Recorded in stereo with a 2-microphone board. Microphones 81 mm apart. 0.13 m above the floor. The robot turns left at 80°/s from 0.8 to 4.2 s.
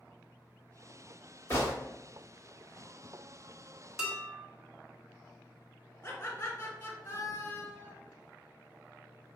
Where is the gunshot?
30° left (ahead or behind), 1.8 m.